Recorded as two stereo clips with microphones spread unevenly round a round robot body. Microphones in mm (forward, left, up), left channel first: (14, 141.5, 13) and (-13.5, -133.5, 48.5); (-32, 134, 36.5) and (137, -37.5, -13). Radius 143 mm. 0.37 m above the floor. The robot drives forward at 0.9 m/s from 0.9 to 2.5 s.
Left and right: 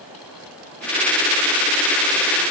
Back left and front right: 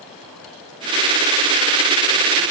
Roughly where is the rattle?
No rattle in this recording.